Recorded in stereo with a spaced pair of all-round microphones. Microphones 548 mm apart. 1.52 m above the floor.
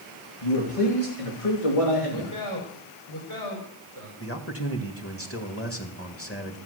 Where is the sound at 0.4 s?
65° left (ahead or behind), 3 m; by 2.3 s 85° left, 3.5 m.